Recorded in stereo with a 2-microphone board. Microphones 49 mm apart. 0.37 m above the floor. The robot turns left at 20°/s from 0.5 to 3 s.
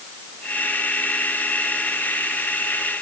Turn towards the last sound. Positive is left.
No sound to turn to.